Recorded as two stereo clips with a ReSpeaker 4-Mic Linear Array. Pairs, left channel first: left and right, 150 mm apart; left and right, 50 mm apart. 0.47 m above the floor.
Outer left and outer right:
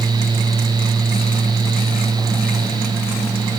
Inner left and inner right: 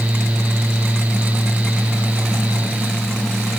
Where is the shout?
I don't hear a shout.